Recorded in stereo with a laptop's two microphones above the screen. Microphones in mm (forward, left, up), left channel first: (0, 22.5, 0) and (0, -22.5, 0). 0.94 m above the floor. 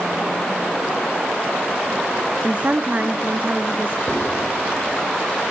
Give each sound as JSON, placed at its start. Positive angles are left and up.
{"t": 2.4, "sound": "a woman speaking", "side_deg": -35, "distance_m": 0.6}
{"t": 4.1, "sound": "writing", "side_deg": 65, "distance_m": 5.5}